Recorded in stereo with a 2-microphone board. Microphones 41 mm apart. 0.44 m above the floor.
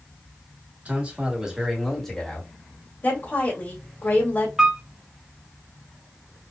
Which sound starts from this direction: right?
A man speaking, at 0.8 s.